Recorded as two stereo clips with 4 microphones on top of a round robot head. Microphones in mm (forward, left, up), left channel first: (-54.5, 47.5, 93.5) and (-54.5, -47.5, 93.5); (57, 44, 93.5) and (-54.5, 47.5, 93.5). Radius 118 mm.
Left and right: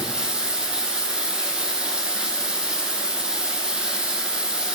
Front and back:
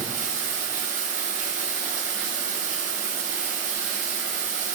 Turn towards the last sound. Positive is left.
turn(degrees=-170)